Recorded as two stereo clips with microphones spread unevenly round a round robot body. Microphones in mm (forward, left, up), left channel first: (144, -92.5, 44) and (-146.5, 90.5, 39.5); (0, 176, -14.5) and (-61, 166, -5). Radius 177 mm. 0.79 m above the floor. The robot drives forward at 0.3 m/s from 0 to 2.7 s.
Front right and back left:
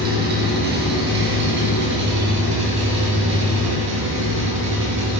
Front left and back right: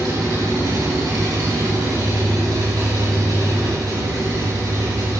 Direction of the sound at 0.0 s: 150° right.